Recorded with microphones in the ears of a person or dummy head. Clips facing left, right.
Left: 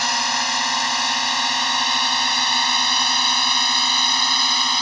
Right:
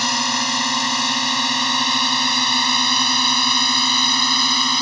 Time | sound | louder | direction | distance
0.0 | a drone | right 2 dB | 80° right | ?